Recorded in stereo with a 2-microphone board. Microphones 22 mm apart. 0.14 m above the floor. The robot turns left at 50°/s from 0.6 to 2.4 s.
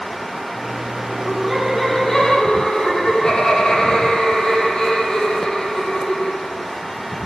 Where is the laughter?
155° right, 4.5 m; by 6.6 s 140° left, 4.5 m.